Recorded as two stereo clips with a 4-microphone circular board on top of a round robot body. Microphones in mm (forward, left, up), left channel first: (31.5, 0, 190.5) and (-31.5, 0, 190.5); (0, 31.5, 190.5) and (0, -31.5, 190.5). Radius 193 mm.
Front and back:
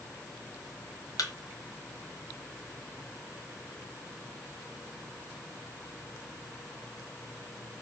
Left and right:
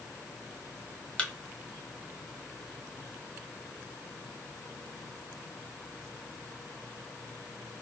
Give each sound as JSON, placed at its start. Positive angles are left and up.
{"t": 1.2, "sound": "a thud", "azimuth_deg": 15, "distance_m": 1.0}